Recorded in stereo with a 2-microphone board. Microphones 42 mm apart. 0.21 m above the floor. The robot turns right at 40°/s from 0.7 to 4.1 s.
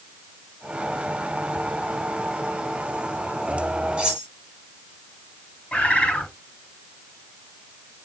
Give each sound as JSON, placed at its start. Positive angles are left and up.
{"t": 4.0, "sound": "cutlery clinking", "side_deg": -20, "distance_m": 2.5}
{"t": 5.7, "sound": "a bird", "side_deg": 35, "distance_m": 1.4}